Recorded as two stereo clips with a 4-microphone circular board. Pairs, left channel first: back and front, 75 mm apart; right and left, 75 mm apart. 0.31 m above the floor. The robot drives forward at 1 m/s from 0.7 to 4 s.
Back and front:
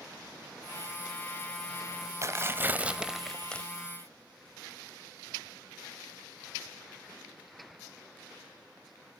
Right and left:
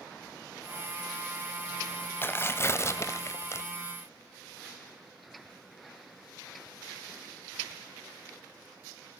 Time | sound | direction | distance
2.2 | tearing paper | 35° right | 1.7 m